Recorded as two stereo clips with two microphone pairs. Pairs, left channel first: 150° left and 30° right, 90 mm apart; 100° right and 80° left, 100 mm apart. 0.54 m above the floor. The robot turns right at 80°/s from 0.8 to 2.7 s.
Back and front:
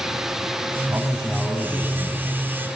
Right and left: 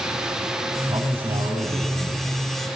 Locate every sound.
0.9 s a man speaking: 30° left, 3.5 m; by 2.6 s 165° left, 3.5 m